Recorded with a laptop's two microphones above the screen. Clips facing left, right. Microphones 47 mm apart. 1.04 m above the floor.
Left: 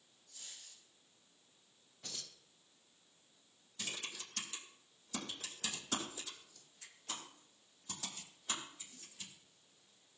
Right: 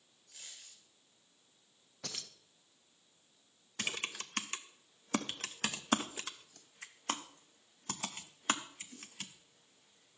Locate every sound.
0.3 s a dropped coin: 85° right, 6 m
2.0 s keys jangling: 85° right, 0.8 m
3.8 s typing on a keyboard: 65° right (ahead or behind), 0.8 m